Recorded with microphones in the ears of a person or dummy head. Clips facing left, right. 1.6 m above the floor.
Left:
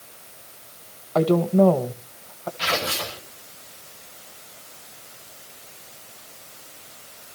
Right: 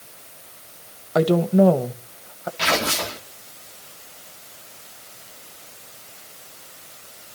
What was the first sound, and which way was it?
A woman speaking, 20° right (ahead or behind).